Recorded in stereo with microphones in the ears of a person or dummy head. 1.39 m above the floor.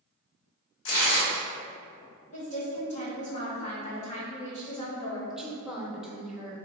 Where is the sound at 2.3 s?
30° left (ahead or behind), 1.1 m.